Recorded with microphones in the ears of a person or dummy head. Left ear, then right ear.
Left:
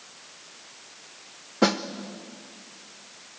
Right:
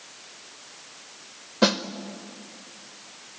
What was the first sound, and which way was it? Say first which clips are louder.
A snare drum: right 1 dB; 20° left (ahead or behind).